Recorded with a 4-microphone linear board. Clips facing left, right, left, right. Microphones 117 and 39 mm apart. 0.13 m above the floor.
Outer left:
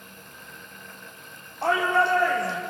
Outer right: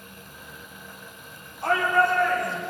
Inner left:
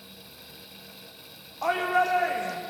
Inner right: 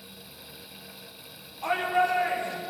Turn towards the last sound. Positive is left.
turn(degrees=75)  # may be behind; listen again after turning